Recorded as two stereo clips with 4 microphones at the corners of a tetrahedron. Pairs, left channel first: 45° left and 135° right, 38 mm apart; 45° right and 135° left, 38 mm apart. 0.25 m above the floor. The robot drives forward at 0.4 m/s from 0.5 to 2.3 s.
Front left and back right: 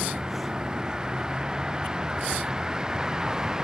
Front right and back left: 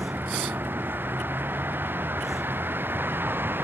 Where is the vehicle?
150° left.